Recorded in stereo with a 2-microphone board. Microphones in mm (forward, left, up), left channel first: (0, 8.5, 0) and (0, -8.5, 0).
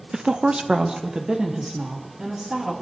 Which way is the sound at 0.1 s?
35° right (ahead or behind).